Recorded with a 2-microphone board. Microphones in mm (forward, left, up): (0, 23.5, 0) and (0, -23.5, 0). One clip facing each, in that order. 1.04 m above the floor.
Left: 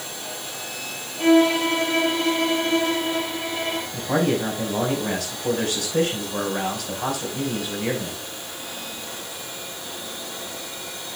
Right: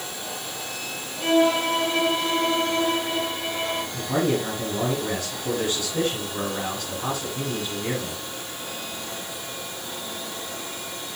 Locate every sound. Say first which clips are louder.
1.2 s a violin: left 3 dB; 75° left (ahead or behind), 7 m
3.9 s a man speaking: left 2 dB; 80° left, 5 m